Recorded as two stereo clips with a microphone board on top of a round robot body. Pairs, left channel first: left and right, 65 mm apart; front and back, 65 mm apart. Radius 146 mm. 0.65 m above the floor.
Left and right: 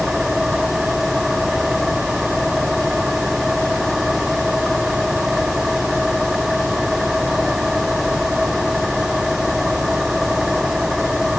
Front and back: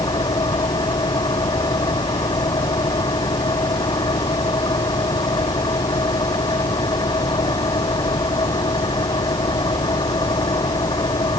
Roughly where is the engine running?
Ahead.